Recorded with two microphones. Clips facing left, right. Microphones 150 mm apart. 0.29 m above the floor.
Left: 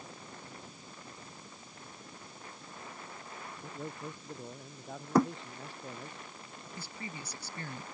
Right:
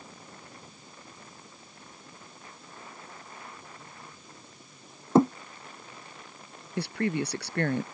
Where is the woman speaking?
75° right (ahead or behind).